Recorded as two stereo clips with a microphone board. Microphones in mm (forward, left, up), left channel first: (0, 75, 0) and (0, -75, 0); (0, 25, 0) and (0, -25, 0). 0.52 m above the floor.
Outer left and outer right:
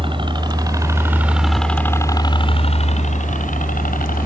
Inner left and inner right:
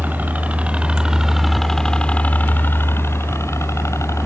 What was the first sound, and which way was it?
A helicopter, 35° right (ahead or behind).